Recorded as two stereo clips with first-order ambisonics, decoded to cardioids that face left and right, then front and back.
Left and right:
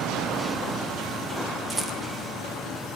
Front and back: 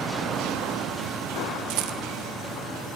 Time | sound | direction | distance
1.7 | a rattle | 170° right | 1.1 m